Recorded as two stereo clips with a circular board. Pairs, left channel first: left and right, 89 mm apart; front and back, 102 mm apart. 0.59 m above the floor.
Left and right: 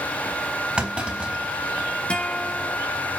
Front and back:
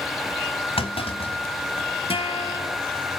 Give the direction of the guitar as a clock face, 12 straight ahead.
12 o'clock.